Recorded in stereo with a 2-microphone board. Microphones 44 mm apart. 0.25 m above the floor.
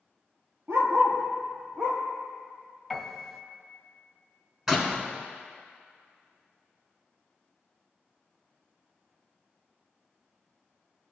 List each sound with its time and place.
0.7 s a dog barking: 80° right, 2 m; by 2.0 s 65° right (ahead or behind), 3.5 m
2.9 s a piano: 10° right (ahead or behind), 1.5 m
4.7 s a door slam: 10° right (ahead or behind), 1.7 m